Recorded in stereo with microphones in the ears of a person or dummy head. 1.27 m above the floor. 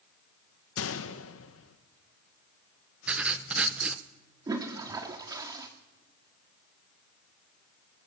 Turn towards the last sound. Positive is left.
turn(degrees=-25)  # may be behind; listen again after turning